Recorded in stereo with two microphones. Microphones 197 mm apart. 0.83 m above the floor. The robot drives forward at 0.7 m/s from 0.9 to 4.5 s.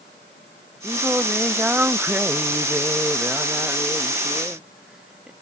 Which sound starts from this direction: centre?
Singing, at 0.8 s.